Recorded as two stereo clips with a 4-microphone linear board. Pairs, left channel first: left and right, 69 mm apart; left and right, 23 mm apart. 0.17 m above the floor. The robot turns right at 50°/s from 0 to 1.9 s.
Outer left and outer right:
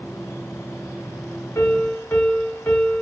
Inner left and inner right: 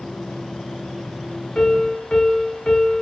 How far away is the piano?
About 1.0 m.